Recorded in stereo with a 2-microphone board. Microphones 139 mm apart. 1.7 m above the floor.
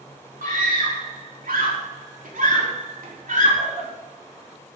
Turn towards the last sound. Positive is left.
turn(degrees=-70)  # may be behind; listen again after turning